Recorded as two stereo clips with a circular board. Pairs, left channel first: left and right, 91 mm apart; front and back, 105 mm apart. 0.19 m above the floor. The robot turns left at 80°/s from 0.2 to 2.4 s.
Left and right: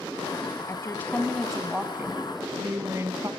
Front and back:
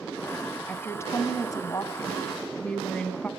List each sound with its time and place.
0.7 s a woman speaking: 65° left, 1.8 m; by 3.3 s 70° right, 1.8 m